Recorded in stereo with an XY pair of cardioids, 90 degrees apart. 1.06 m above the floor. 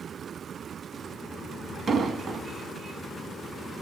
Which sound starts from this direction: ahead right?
An explosion, at 1.9 s.